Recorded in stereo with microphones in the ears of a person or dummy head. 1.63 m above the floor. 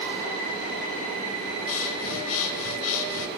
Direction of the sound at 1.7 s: 75° left (ahead or behind).